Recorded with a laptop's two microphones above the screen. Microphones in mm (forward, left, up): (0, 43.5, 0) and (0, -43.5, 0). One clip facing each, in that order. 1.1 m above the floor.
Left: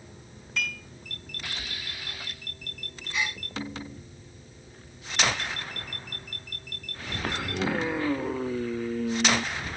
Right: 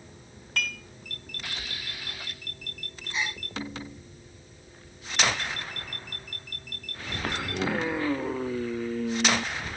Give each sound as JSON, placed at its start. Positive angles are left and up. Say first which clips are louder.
{"t": 0.6, "sound": "dishes clattering", "louder": "even", "side_deg": -65, "distance_m": 5.0}
{"t": 3.1, "sound": "a gasp", "louder": "left 1 dB", "side_deg": -30, "distance_m": 3.5}